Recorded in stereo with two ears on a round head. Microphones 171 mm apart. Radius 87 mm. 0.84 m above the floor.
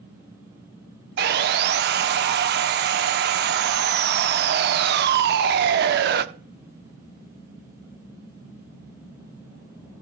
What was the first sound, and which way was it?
Sawing, 60° right (ahead or behind).